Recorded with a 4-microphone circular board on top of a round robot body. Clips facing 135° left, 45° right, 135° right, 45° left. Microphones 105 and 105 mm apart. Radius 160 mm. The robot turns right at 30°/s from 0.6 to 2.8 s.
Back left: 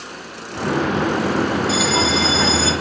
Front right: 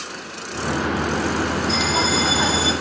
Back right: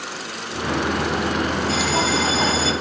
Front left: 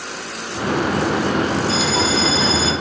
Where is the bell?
145° right, 1.0 m; by 2.7 s 110° right, 1.0 m.